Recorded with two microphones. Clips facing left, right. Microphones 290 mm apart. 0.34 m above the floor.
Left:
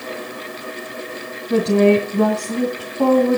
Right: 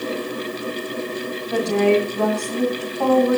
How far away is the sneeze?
I don't hear a sneeze.